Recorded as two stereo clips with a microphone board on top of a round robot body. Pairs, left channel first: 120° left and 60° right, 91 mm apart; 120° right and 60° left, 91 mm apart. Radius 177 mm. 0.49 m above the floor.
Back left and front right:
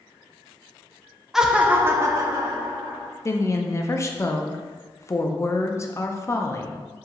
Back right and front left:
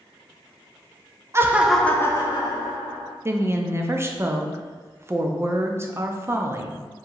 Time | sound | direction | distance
1.3 | laughter | 25° left | 0.7 m
3.2 | a woman speaking | 95° left | 0.7 m